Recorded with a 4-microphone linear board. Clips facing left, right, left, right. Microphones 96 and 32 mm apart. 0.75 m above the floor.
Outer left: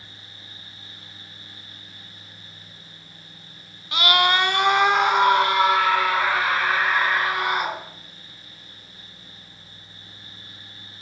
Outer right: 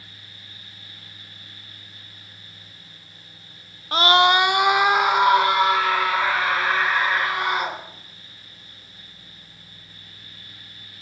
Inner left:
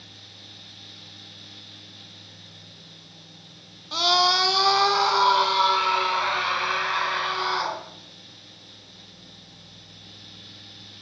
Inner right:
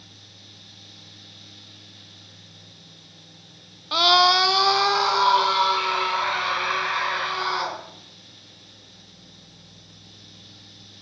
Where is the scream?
35° right (ahead or behind), 0.6 m; by 7.8 s centre (ahead or behind), 5.5 m.